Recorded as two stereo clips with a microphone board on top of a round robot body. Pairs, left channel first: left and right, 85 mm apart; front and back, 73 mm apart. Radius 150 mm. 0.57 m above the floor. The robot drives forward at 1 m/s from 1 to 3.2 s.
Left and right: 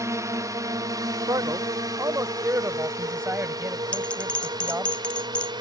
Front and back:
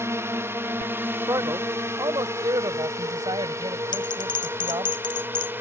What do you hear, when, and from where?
0.0 s a drone: 135° right; by 5.6 s 120° right
1.3 s a man speaking: 140° right; by 4.9 s 155° right
3.9 s a bell: 10° left